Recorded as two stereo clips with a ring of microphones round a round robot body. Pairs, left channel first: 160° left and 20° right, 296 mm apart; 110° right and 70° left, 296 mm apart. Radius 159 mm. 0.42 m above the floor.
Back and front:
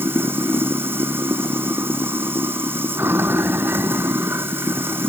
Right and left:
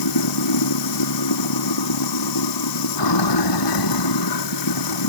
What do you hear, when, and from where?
0.0 s running water: 105° right